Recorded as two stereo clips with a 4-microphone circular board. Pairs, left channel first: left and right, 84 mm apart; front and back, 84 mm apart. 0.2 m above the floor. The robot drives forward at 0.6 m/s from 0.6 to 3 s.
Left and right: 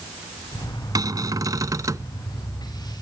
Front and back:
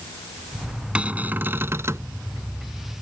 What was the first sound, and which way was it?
A cupboard door, 110° right.